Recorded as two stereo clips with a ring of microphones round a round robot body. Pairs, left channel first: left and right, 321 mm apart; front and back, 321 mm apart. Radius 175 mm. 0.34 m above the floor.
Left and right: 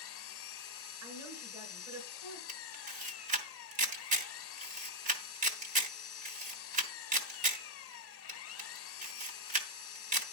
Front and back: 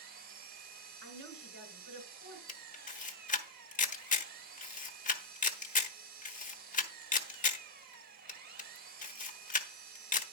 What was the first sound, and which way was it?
An engine running, 125° left.